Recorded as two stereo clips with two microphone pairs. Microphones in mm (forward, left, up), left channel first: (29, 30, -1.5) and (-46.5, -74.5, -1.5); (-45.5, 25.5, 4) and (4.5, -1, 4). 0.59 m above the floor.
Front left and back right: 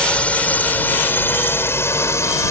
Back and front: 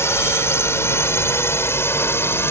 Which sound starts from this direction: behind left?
A drone, at 0.0 s.